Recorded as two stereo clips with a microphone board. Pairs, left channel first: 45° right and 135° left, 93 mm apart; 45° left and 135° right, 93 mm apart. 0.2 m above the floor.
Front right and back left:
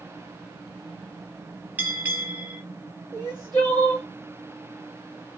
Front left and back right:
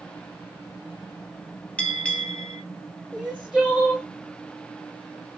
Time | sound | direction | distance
1.8 | a bell | 100° left | 0.6 m
3.1 | crying | 135° left | 2 m